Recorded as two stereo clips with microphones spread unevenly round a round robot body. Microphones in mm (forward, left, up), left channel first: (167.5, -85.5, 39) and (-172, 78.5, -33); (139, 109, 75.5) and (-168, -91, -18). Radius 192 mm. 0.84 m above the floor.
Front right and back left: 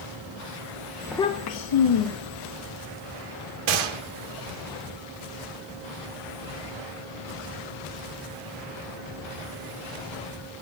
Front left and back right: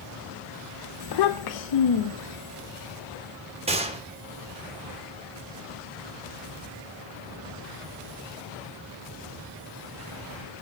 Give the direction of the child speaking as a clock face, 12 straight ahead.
9 o'clock.